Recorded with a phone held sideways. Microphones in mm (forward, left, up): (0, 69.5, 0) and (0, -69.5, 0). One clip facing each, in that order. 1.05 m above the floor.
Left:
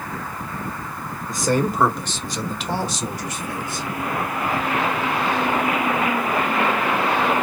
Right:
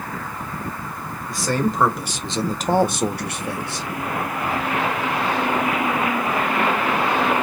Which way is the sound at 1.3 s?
20° left (ahead or behind).